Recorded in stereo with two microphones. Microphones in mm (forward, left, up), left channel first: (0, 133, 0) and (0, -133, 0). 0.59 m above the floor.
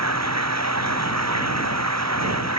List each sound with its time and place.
0.0 s running water: 80° right